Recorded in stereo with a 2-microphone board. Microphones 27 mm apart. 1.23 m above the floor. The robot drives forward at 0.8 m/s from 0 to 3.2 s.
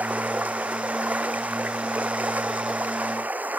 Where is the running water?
75° right (ahead or behind); by 3.6 s 85° right.